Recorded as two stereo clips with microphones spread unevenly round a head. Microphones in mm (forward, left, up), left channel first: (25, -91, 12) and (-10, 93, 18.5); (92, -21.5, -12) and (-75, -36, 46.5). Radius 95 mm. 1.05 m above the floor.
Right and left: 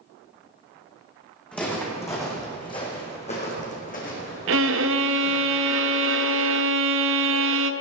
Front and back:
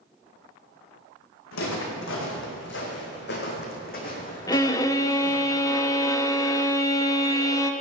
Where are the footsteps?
5° left, 3.5 m; by 5.5 s 50° right, 4.5 m.